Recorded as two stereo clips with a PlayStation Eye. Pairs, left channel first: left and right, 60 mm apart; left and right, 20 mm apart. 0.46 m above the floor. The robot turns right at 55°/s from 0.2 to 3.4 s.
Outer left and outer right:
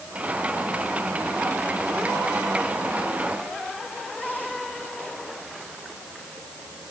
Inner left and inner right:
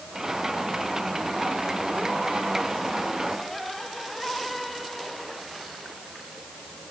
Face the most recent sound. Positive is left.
No sound to turn to.